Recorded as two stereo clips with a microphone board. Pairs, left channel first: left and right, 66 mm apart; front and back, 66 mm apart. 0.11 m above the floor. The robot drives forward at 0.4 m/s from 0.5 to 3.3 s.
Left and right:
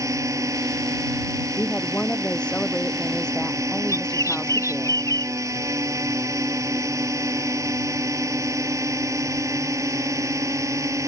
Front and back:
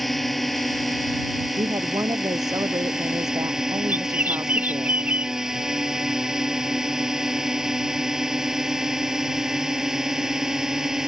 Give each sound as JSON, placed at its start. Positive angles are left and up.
{"t": 0.0, "sound": "a drone", "azimuth_deg": -90}
{"t": 1.6, "sound": "a woman speaking", "azimuth_deg": 165}
{"t": 3.9, "sound": "a bird", "azimuth_deg": 120}